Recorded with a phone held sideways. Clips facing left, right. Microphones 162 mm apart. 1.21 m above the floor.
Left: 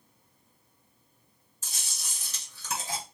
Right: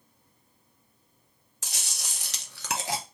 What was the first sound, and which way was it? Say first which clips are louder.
Chewing: right 4 dB; 75° right (ahead or behind).